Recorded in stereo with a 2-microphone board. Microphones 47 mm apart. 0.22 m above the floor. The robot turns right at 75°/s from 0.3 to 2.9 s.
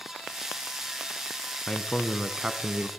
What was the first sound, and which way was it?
A man speaking, 145° left.